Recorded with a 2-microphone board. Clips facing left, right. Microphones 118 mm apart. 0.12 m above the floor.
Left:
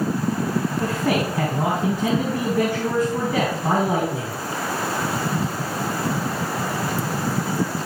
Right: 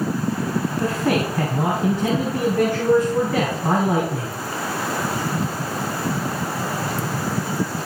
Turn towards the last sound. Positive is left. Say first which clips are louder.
# right 3 dB
turn(degrees=5)  # may be behind; listen again after turning